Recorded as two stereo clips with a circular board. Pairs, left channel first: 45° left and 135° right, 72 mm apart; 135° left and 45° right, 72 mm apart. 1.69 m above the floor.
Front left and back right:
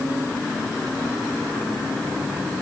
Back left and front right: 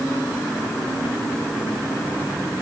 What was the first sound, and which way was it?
Only background noise.